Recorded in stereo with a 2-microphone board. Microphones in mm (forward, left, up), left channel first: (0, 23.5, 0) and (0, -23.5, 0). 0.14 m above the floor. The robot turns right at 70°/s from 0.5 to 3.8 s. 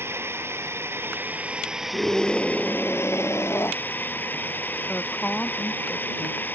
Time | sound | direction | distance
0.0 | a drone | 100° right | ?
1.9 | a scream | 25° right | ?
4.9 | a woman speaking | 30° left (ahead or behind) | ?